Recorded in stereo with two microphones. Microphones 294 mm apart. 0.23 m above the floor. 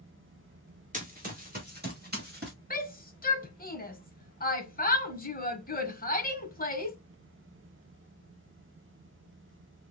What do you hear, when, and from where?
0.9 s running footsteps: 25° right (ahead or behind), 2 m; by 2.5 s 35° right (ahead or behind), 3.5 m
2.7 s a shout: 30° left (ahead or behind), 1.1 m